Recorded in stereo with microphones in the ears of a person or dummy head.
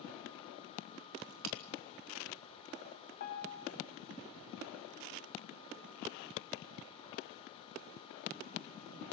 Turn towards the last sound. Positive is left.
turn(degrees=55)  # may be behind; listen again after turning